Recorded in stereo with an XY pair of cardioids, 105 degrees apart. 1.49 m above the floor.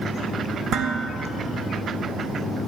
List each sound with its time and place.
0.7 s dishes clattering: 65° right, 1.8 m